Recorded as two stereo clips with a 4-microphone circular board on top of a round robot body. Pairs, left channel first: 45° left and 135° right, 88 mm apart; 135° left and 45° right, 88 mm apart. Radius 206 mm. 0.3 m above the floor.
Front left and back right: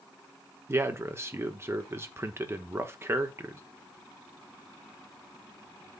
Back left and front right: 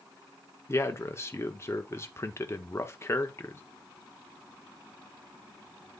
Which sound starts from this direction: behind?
A man speaking, at 0.7 s.